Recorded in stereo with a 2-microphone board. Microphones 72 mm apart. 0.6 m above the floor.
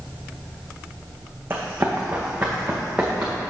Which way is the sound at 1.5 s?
35° right (ahead or behind).